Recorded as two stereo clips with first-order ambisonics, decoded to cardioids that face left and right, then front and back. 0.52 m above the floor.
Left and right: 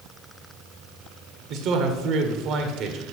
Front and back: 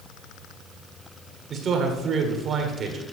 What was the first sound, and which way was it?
A man speaking, 125° right.